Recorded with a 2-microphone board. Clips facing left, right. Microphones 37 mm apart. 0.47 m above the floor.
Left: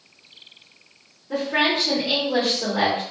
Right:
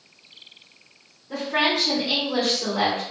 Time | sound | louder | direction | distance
1.3 | a woman speaking | left 1 dB | 20° left (ahead or behind) | 1.0 m